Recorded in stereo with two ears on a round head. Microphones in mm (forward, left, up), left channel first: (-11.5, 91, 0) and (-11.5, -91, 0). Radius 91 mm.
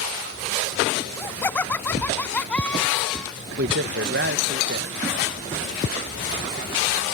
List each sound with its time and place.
1.0 s laughter: 10° left (ahead or behind); by 3.3 s centre (ahead or behind)
3.6 s a man speaking: 50° right (ahead or behind)